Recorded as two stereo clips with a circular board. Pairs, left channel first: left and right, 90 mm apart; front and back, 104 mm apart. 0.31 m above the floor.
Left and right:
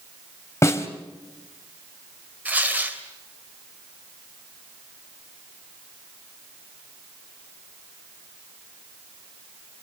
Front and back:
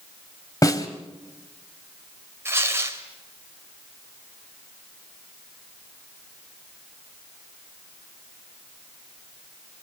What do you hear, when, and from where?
0.6 s a snare drum: 45° left, 1.5 m
2.5 s tearing paper: 145° right, 1.6 m